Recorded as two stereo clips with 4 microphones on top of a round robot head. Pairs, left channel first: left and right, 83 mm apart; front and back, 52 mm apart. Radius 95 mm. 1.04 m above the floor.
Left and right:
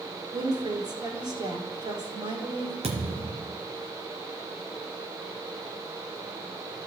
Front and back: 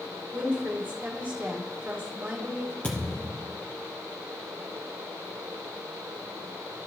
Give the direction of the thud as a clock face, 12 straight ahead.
2 o'clock.